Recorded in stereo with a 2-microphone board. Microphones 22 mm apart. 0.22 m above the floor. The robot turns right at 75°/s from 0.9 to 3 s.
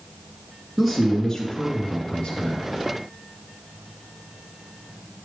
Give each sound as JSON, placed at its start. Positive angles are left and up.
{"t": 0.8, "sound": "a man speaking", "azimuth_deg": -5, "distance_m": 2.5}